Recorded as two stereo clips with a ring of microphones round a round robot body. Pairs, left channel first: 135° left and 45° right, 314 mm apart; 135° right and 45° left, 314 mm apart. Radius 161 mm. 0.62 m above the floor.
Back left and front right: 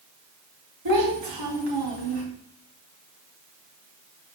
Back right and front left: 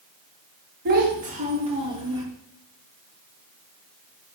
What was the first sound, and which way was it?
A child speaking, 15° right.